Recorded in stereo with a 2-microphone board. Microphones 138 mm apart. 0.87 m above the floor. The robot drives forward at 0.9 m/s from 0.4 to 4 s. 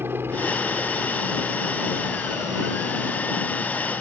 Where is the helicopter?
15° right (ahead or behind).